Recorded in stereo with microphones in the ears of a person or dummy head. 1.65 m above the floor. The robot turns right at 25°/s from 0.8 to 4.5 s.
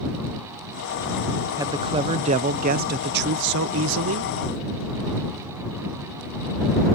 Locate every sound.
1.6 s a man speaking: 155° right; by 4.3 s 90° right